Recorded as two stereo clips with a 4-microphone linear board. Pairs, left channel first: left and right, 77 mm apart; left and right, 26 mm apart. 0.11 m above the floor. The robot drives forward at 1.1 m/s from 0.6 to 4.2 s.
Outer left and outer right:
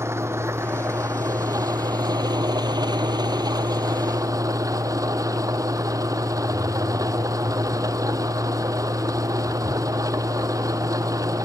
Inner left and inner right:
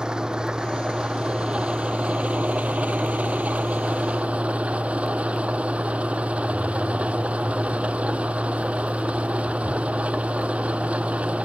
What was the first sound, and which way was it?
An engine running, 35° right (ahead or behind).